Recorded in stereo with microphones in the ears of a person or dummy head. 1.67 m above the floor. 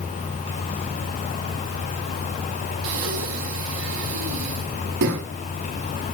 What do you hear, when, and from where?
2.8 s breathing: 70° right (ahead or behind), 4 m